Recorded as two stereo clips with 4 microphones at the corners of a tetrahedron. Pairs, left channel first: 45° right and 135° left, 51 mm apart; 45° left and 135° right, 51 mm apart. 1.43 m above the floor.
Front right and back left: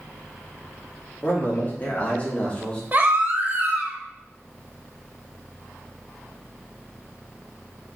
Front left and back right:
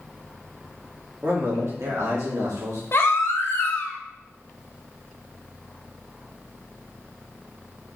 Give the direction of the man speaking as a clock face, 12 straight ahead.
3 o'clock.